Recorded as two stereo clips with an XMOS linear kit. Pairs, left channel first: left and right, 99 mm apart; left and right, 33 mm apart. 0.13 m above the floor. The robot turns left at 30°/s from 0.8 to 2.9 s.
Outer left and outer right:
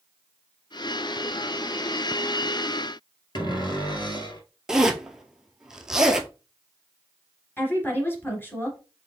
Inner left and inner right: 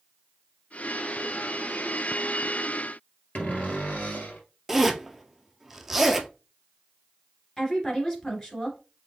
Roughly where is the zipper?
Centre.